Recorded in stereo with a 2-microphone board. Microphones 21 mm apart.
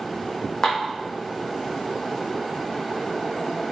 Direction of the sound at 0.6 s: 45° left (ahead or behind).